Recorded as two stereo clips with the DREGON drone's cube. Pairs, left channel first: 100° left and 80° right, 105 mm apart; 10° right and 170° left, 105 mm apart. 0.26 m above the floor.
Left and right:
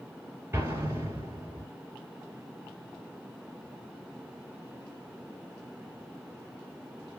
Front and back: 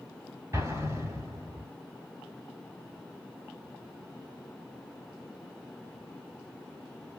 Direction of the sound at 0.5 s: 135° right.